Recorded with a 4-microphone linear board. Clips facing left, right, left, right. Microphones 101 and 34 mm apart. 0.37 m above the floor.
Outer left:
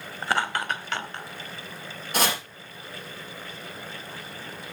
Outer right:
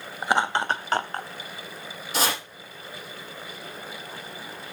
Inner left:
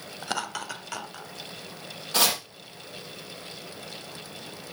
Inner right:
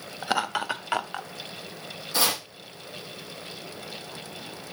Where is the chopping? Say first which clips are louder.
Outer left 1 dB, inner left 1 dB; 55° left (ahead or behind), 5.5 m.